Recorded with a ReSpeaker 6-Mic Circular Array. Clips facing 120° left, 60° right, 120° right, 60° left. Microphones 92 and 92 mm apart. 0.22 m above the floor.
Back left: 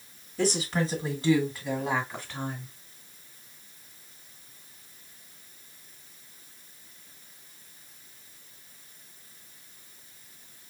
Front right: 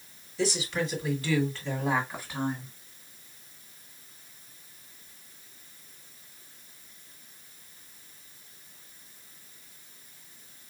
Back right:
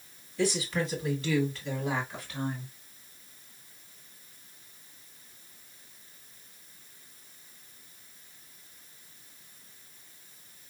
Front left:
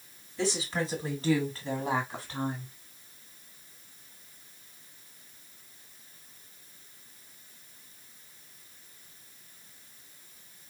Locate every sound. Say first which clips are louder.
0.4 s a woman speaking: back left 2 dB, back right 2 dB; 115° left, 2 m; by 2.7 s 5° left, 2.5 m